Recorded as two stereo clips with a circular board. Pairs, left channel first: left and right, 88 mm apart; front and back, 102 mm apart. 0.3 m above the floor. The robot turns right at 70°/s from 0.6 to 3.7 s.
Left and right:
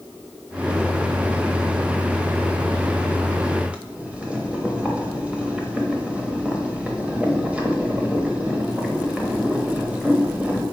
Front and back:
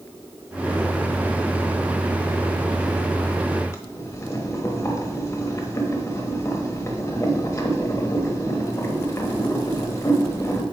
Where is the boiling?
25° right, 1.0 m.